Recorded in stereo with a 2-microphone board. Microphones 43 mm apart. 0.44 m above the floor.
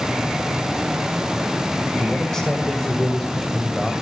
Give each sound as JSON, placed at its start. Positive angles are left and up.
{"t": 2.0, "sound": "a man speaking", "side_deg": 15, "distance_m": 2.5}